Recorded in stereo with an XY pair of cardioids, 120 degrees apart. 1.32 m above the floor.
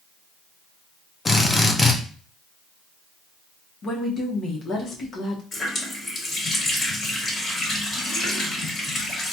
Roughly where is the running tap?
Ahead left.